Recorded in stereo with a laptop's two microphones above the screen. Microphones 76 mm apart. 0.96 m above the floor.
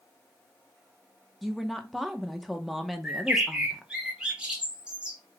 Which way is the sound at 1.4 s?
Centre (ahead or behind).